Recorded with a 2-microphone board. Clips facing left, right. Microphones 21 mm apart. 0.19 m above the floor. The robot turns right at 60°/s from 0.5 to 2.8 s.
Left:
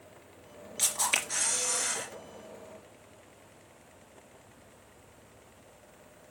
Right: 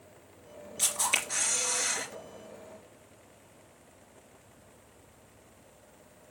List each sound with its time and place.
0.8 s a camera shutter: 145° left, 3.5 m; by 2.1 s 140° right, 3.5 m